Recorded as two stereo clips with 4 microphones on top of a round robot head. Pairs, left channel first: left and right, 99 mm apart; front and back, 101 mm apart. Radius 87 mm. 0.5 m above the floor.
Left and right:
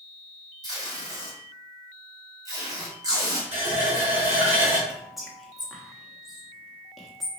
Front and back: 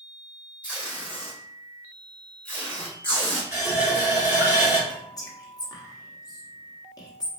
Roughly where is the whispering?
Ahead.